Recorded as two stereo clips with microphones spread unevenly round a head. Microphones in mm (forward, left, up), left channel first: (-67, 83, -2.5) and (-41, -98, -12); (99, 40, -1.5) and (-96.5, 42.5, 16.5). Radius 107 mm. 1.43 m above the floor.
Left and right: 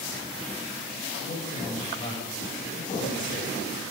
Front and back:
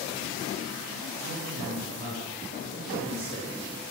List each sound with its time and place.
1.2 s a man speaking: 155° left, 6 m; by 3.8 s 130° left, 3 m